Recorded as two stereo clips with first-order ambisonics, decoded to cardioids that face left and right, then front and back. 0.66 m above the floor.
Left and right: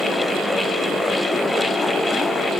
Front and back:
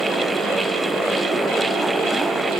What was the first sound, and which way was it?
Only background noise.